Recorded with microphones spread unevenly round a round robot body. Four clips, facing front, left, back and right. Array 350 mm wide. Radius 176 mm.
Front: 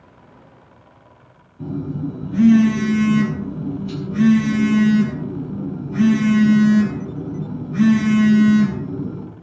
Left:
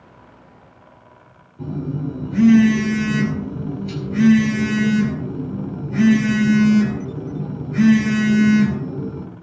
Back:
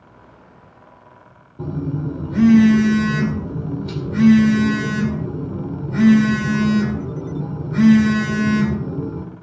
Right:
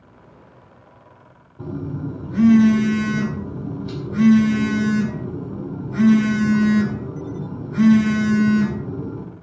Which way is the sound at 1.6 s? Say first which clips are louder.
Left 2 dB, even; straight behind.